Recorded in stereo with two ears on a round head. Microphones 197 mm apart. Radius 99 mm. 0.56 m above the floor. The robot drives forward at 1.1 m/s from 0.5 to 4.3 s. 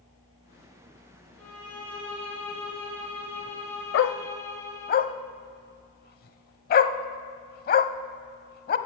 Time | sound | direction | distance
1.4 | a violin | 5° left (ahead or behind) | 5.5 m
3.9 | a dog barking | 60° left (ahead or behind) | 0.5 m